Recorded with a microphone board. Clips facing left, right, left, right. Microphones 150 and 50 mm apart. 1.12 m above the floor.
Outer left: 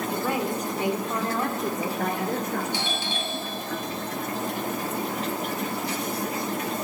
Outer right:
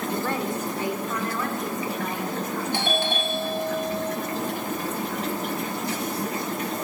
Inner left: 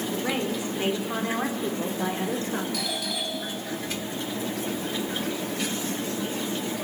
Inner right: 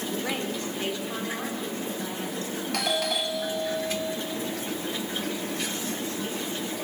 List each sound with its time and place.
0.1 s a woman speaking: 5° left (ahead or behind), 3 m; by 2.6 s 55° left (ahead or behind), 3 m
2.7 s a doorbell: 55° right (ahead or behind), 2 m